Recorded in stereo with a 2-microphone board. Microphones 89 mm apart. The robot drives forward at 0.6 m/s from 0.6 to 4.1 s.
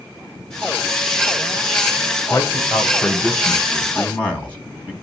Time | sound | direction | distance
2.3 | a man speaking | 20° left (ahead or behind) | 3 m